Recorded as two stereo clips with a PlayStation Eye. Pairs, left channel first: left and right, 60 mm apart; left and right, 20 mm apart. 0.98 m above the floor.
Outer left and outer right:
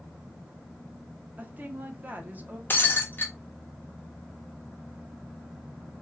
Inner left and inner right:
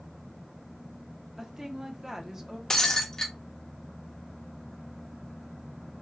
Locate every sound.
1.4 s a woman speaking: 30° right (ahead or behind), 0.6 m
2.7 s breaking glass: 35° left (ahead or behind), 0.5 m